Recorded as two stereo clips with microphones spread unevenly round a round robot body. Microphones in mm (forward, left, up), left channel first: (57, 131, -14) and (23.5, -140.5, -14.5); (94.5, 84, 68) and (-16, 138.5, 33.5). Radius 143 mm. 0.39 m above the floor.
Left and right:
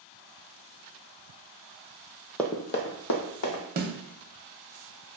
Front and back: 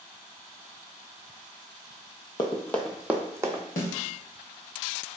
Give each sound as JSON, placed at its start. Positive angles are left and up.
{"t": 2.4, "sound": "running footsteps", "azimuth_deg": 0, "distance_m": 0.6}
{"t": 3.8, "sound": "a snare drum", "azimuth_deg": -40, "distance_m": 0.6}